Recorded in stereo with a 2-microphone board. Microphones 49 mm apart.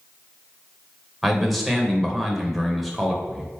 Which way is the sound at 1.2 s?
Centre (ahead or behind).